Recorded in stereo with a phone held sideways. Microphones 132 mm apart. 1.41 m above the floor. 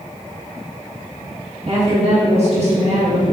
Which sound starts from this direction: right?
A woman speaking, at 1.7 s.